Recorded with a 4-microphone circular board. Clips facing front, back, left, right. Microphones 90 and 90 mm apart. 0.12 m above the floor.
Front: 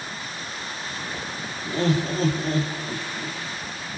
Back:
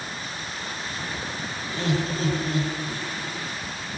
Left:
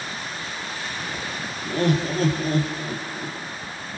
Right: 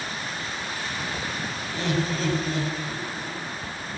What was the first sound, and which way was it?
Laughter, 50° left.